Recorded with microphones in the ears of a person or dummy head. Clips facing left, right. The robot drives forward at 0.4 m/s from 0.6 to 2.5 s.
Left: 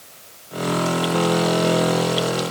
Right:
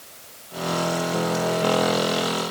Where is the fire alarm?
I don't hear a fire alarm.